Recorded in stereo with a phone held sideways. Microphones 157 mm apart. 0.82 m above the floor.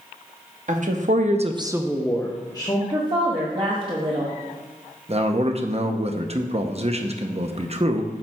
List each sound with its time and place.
0.7 s a woman speaking: 60° right (ahead or behind), 1.2 m; by 2.8 s 30° left (ahead or behind), 1.4 m
2.9 s a woman speaking: 35° right (ahead or behind), 1.2 m
5.1 s a man speaking: 45° right (ahead or behind), 0.8 m